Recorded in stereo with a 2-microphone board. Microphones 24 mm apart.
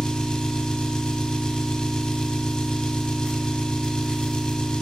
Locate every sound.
0.0 s an engine running: 40° left (ahead or behind), 0.9 m